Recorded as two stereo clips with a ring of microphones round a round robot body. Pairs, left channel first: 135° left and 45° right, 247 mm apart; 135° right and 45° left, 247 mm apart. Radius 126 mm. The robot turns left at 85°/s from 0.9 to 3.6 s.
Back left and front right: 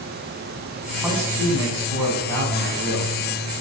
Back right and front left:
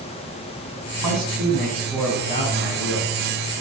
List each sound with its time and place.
1.0 s a man speaking: 40° left, 5 m; by 3.1 s 145° right, 5 m